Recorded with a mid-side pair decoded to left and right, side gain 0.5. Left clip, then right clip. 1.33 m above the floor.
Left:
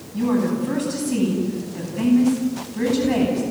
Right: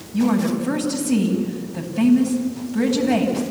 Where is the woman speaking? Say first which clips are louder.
Right 1 dB; 70° right, 10 m.